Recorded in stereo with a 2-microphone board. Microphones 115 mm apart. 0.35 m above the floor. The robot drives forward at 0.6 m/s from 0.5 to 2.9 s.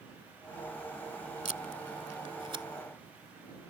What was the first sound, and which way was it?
Tape being pulled, 75° right (ahead or behind).